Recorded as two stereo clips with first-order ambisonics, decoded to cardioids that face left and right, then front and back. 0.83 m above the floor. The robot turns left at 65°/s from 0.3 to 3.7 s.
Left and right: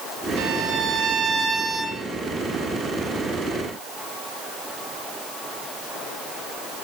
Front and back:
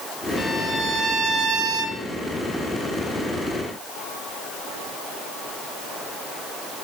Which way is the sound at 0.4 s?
95° right.